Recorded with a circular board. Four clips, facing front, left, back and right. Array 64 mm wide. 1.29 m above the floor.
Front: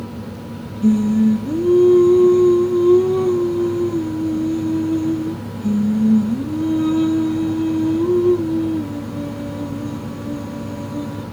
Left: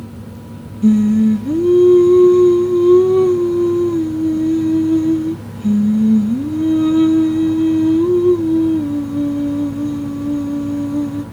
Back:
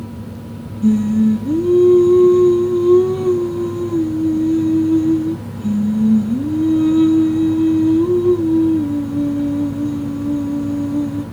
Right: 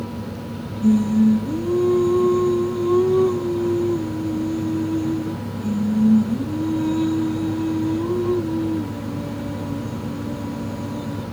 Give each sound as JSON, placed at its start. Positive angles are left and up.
{"t": 0.8, "sound": "singing", "azimuth_deg": 90, "distance_m": 0.7}